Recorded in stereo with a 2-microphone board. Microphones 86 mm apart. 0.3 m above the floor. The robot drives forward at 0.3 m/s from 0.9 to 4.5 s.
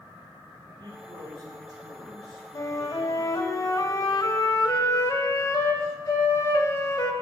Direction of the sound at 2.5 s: 40° left (ahead or behind).